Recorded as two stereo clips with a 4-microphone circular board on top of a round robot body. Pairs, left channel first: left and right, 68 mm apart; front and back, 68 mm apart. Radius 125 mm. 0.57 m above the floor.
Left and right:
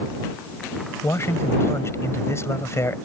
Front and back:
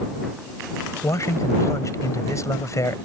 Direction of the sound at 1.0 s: 40° left.